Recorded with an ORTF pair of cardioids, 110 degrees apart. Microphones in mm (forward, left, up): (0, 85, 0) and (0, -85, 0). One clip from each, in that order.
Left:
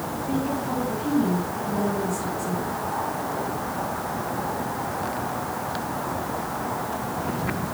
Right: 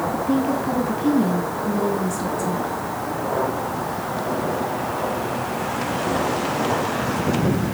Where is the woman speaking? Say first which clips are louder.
Right 5 dB; 50° right, 2.5 m.